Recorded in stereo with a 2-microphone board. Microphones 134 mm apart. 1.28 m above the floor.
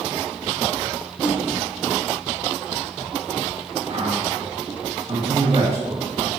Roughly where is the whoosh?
Centre.